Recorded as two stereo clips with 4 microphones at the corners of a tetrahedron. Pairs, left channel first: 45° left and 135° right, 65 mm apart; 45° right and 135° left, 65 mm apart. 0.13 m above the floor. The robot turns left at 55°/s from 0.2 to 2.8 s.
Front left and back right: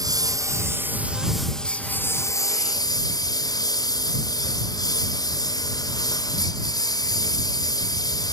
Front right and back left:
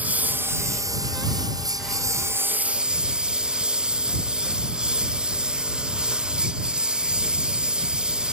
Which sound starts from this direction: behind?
A lawn mower, at 0.0 s.